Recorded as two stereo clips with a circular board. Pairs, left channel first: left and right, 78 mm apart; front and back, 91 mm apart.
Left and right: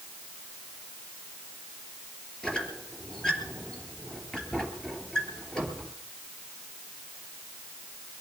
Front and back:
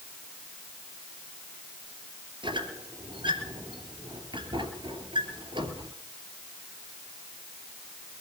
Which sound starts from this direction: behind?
A squeak, at 2.4 s.